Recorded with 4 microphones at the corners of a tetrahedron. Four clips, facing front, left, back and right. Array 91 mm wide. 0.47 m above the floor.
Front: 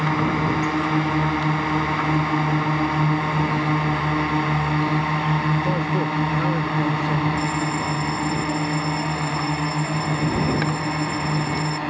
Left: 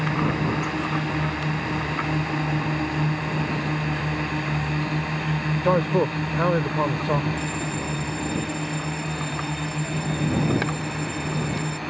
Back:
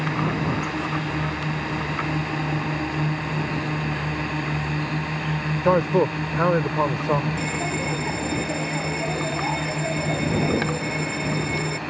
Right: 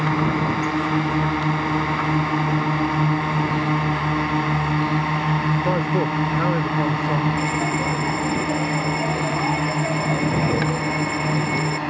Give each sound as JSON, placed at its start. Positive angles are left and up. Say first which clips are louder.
{"t": 0.0, "sound": "a drone", "louder": "right 3 dB, front 3 dB", "azimuth_deg": -45}
{"t": 5.6, "sound": "a man speaking", "louder": "even, back 3 dB", "azimuth_deg": 155}
{"t": 7.4, "sound": "a bell", "louder": "right 6 dB, front 3 dB", "azimuth_deg": -120}